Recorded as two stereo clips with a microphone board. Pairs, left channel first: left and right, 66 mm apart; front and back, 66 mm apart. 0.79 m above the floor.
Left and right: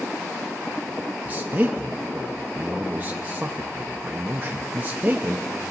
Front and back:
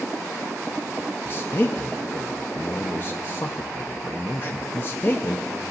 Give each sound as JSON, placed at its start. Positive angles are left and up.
{"t": 1.2, "sound": "a man speaking", "azimuth_deg": -35, "distance_m": 0.5}